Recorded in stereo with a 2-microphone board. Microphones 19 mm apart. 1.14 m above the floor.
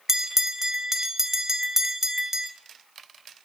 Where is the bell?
20° right (ahead or behind), 0.8 m.